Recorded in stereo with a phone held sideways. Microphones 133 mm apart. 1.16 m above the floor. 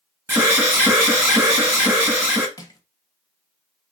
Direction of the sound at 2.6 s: 30° left (ahead or behind).